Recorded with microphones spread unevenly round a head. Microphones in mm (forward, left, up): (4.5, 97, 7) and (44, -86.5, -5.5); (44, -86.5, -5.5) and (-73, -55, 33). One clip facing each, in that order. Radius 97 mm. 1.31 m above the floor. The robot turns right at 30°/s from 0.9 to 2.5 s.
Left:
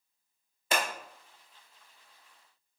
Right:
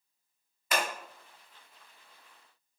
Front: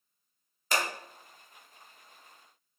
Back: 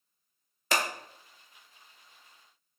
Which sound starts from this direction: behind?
Scissors, at 0.7 s.